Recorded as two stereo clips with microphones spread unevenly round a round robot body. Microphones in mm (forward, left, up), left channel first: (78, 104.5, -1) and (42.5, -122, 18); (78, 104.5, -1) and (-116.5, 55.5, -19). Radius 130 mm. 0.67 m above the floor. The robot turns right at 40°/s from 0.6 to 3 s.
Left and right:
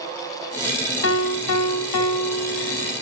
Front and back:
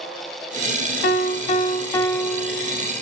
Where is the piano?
50° left, 2.5 m; by 2.9 s 125° left, 2.5 m.